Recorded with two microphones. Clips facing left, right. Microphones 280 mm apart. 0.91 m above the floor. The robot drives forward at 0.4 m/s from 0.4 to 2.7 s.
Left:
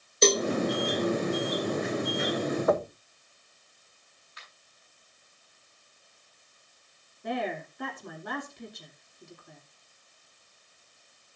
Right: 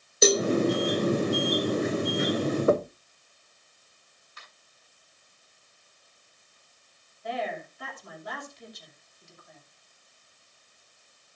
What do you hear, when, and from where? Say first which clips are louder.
0.2 s a cowbell: right 2 dB; 10° right (ahead or behind), 0.8 m
2.7 s knocking: right 3 dB; 30° right (ahead or behind), 0.7 m
4.4 s a finger snap: right 1 dB; 50° right (ahead or behind), 8.5 m
7.2 s a woman speaking: left 2 dB; 60° left (ahead or behind), 2.5 m